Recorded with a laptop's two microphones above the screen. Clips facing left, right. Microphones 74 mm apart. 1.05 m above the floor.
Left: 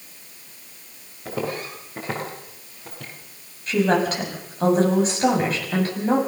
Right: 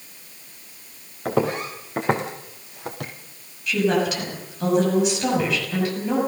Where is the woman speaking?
40° left (ahead or behind), 6.5 m.